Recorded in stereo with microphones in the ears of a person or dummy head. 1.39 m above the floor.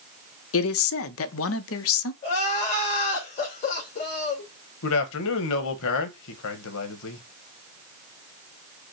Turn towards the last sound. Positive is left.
turn(degrees=70)  # may be behind; listen again after turning